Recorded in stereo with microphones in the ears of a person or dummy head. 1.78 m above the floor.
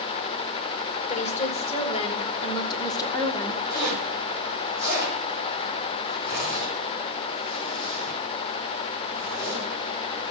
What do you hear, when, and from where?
1.1 s a woman speaking: 35° left (ahead or behind), 3 m; by 3.6 s 10° left (ahead or behind), 1.5 m
3.7 s a zipper: 60° left (ahead or behind), 6.5 m